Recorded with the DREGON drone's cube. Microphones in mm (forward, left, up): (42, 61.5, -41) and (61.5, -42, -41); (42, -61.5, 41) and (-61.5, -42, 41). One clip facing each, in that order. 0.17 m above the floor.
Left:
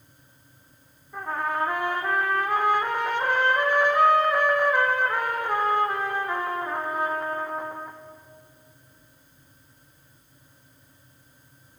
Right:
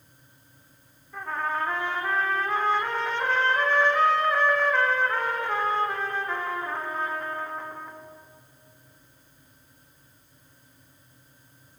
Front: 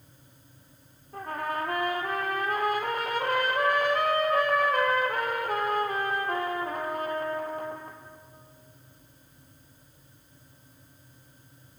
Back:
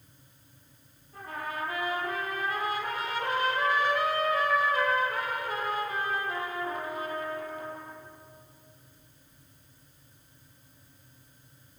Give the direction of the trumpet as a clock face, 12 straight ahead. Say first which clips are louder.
Left 2 dB, front 5 dB; 11 o'clock.